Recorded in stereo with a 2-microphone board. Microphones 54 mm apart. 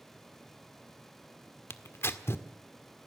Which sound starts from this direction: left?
Tearing paper, at 1.7 s.